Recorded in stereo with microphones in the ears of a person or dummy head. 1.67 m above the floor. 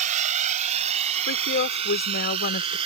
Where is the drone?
40° right (ahead or behind); by 2.9 s 35° right (ahead or behind).